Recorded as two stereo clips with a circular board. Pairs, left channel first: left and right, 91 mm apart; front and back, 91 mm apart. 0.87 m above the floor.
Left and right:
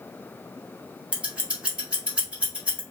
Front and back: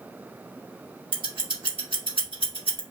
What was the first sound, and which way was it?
Scissors, 165° right.